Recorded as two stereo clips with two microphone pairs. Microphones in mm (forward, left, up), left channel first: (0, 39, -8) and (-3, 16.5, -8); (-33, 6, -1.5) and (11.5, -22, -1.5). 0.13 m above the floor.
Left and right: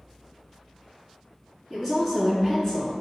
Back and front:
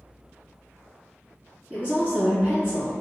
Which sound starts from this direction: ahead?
A woman speaking, at 1.7 s.